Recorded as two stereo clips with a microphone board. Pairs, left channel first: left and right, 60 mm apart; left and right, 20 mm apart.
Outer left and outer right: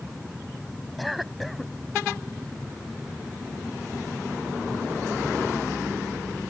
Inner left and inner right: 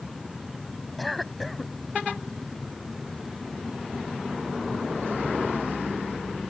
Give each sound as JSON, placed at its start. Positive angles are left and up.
{"t": 1.0, "sound": "a cough", "side_deg": 0}